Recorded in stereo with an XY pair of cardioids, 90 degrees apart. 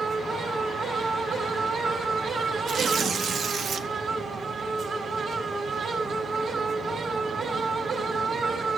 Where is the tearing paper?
70° right, 1.0 m.